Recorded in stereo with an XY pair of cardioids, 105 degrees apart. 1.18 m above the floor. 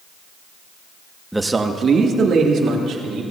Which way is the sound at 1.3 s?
5° right.